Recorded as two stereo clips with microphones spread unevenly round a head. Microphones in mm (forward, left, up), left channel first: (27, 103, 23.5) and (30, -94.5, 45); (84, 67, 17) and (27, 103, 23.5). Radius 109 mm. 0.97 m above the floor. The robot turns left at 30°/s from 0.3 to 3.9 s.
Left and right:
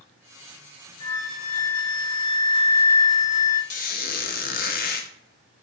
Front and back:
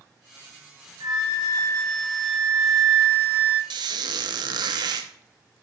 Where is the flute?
160° left, 1.1 m; by 3.6 s 80° left, 1.1 m.